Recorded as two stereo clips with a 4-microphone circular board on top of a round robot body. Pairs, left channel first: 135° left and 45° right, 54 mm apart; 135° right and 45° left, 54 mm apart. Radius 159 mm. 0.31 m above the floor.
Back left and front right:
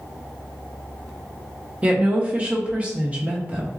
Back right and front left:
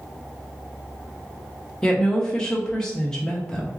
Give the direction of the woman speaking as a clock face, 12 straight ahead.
2 o'clock.